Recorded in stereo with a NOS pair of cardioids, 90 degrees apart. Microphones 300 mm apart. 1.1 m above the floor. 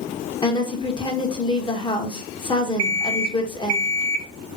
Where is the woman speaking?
15° left, 0.9 m.